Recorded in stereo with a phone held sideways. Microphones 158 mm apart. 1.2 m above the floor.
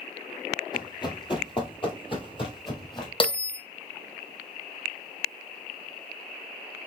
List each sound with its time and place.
0.7 s running footsteps: 25° left (ahead or behind), 1.4 m; by 3.1 s 30° left (ahead or behind), 1.7 m
3.2 s a bell: 35° left (ahead or behind), 0.8 m